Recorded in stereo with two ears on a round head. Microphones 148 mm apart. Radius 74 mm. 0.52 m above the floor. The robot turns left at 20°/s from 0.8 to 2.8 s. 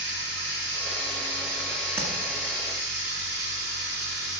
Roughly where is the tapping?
Centre.